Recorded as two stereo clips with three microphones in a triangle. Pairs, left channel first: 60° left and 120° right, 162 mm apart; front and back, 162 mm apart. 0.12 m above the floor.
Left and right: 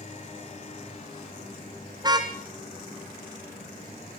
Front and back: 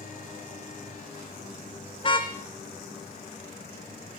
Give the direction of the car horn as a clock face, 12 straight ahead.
2 o'clock.